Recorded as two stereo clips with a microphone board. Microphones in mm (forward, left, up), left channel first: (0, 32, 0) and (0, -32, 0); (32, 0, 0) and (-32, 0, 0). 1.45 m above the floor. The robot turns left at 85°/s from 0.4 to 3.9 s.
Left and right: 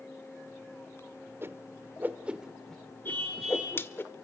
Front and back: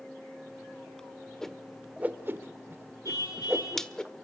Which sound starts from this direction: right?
A whoosh, at 1.4 s.